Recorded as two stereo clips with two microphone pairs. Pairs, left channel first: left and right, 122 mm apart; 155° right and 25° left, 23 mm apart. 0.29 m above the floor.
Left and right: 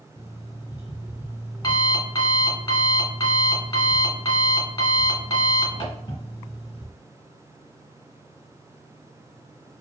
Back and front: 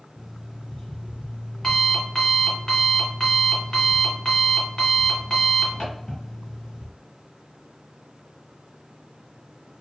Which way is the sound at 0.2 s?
130° left.